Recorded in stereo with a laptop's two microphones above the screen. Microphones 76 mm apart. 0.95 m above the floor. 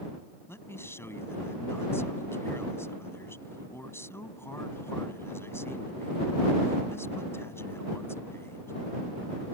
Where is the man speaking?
35° left (ahead or behind).